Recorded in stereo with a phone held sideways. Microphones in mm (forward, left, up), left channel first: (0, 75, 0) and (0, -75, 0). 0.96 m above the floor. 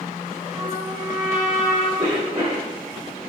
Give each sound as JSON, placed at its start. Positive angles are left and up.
{"t": 0.5, "sound": "a trumpet", "side_deg": -25, "distance_m": 2.5}
{"t": 2.0, "sound": "a cough", "side_deg": -55, "distance_m": 3.5}